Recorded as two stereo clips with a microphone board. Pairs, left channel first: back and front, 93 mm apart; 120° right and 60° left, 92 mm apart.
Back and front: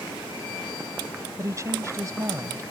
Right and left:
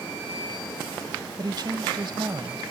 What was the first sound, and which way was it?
A woman speaking, 45° left.